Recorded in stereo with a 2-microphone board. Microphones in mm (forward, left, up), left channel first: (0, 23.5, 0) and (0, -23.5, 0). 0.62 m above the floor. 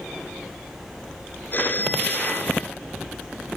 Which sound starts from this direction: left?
A phone ringing, at 1.5 s.